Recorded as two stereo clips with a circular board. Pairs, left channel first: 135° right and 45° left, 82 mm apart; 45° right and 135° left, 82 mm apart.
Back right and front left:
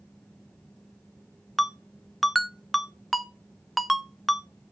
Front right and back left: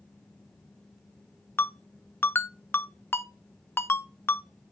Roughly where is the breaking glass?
I don't hear breaking glass.